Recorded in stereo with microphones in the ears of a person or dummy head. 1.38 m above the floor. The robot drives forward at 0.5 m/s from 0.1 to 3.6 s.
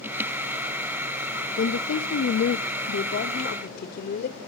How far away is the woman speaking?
About 0.9 m.